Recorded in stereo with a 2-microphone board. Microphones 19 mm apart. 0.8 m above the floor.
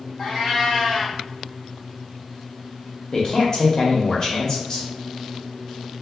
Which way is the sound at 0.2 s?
35° left (ahead or behind).